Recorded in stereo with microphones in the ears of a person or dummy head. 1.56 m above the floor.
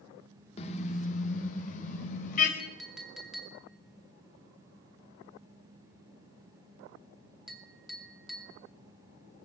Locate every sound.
0.6 s a car horn: 40° left (ahead or behind), 2 m; by 2.5 s 50° left (ahead or behind), 4.5 m
2.6 s a clink: centre (ahead or behind), 2.5 m